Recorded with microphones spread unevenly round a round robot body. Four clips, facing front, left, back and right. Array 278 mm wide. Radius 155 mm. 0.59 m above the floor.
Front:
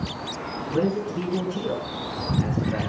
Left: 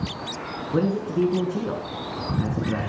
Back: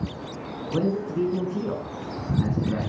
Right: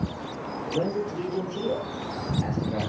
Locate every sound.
0.7 s a man speaking: 105° left, 7 m; by 2.9 s 120° left, 7 m